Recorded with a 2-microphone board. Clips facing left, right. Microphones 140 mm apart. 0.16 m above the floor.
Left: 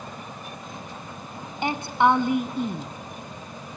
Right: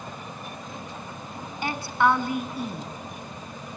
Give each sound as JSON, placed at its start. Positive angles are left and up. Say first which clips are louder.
{"t": 1.6, "sound": "a woman speaking", "louder": "left 2 dB", "side_deg": 25, "distance_m": 1.0}